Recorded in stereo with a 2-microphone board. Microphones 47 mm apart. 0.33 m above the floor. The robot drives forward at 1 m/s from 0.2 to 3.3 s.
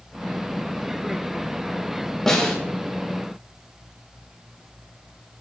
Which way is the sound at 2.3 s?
10° left (ahead or behind).